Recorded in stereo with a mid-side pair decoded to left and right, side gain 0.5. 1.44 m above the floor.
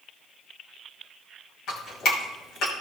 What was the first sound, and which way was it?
Dripping, 65° left.